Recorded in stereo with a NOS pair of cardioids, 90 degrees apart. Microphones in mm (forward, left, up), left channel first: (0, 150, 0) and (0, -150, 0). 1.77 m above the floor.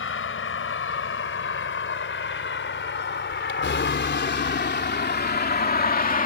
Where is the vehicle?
45° left; by 6.3 s 30° left.